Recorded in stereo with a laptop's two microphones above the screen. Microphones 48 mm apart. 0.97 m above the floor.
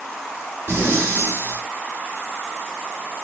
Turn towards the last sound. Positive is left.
turn(degrees=-55)  # may be behind; listen again after turning